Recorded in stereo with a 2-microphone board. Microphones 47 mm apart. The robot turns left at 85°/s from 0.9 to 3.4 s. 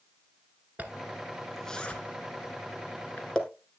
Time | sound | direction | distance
0.8 | a zipper | 35° right (ahead or behind) | 1.1 m